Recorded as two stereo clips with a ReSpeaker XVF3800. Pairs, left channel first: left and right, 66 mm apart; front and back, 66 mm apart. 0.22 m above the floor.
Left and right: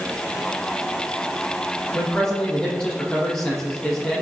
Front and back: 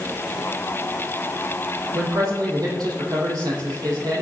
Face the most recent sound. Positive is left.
turn(degrees=170)